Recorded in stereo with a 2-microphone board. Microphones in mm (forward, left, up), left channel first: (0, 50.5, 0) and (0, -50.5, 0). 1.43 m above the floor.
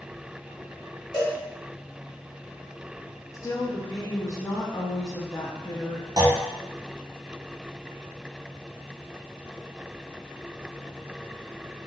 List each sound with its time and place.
1.1 s a cowbell: 45° left (ahead or behind), 1.1 m
3.3 s a woman speaking: 35° left (ahead or behind), 0.5 m
6.2 s a clunk: 45° right (ahead or behind), 0.6 m